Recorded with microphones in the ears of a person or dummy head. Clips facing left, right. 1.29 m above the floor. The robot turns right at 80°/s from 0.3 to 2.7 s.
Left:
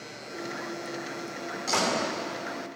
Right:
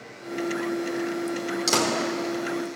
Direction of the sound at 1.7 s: 70° right (ahead or behind).